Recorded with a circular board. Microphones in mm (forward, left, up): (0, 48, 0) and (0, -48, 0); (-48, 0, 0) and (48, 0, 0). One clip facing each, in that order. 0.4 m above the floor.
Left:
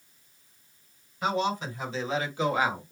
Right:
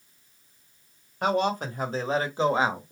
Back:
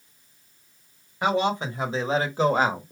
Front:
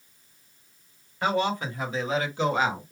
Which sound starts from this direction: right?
A man speaking, at 1.2 s.